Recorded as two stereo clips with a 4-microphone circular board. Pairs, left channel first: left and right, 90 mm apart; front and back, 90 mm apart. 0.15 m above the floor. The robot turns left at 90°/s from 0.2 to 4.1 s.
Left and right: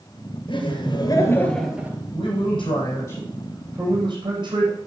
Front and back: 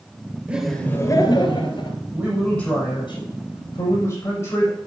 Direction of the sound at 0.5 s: 105° left.